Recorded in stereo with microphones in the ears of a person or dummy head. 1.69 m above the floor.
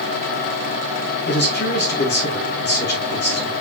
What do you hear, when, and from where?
1.2 s a man speaking: 55° left (ahead or behind), 2 m